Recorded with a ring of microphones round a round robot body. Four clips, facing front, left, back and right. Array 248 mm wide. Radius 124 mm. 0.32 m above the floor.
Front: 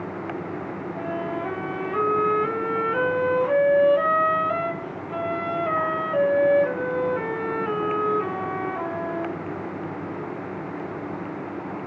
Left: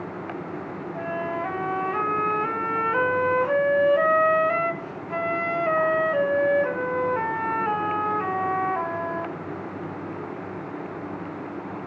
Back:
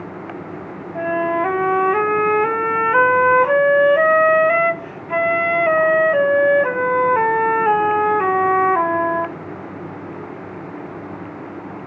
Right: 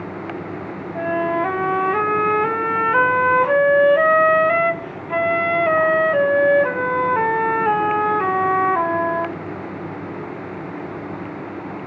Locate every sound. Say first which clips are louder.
0.9 s a flute: right 9 dB, back 11 dB; 150° right, 0.8 m